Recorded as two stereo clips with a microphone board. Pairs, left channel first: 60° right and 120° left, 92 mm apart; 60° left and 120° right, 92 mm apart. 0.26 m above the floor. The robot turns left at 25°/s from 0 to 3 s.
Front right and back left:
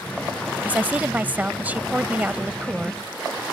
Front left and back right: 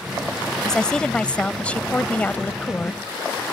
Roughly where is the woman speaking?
Behind left.